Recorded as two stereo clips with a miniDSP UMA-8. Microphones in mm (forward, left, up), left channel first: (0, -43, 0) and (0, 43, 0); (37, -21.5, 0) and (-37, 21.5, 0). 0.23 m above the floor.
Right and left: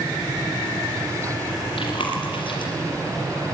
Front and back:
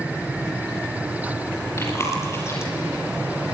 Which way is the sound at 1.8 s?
90° right.